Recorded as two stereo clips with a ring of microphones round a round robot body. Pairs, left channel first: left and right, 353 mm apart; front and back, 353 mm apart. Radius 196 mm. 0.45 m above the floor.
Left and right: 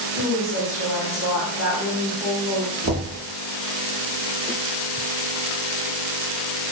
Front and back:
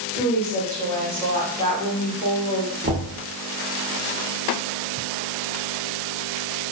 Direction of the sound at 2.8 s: 125° right.